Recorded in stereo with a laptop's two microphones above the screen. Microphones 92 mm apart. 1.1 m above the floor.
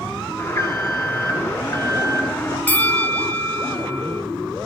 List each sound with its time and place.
0.4 s an alarm: 25° left (ahead or behind), 3.5 m
2.7 s a bell: 15° left (ahead or behind), 0.5 m